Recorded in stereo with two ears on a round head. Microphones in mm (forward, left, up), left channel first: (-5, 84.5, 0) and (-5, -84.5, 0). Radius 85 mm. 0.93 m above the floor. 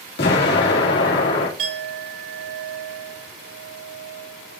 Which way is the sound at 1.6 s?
70° right (ahead or behind).